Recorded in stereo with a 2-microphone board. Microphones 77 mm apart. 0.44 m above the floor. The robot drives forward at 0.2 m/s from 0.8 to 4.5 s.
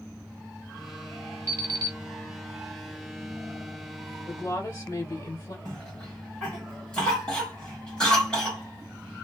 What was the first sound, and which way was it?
An alarm clock, 40° right (ahead or behind).